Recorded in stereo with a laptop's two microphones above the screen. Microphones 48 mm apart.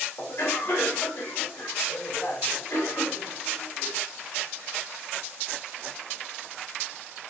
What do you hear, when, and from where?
0.2 s a cough: 70° left (ahead or behind), 2 m